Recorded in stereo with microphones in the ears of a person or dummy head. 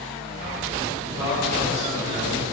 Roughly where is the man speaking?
Centre.